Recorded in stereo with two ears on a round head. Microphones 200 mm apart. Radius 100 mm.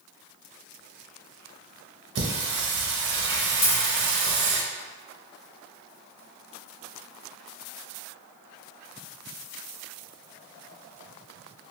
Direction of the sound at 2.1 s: 55° right (ahead or behind).